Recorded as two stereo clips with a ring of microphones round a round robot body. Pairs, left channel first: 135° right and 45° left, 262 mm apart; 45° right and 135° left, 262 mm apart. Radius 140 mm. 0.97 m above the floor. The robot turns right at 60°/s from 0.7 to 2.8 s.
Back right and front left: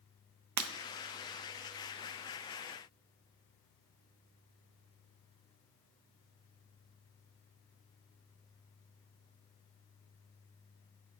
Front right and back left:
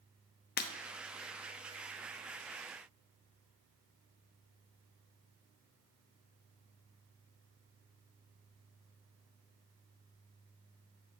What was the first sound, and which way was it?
Breaking glass, 15° left.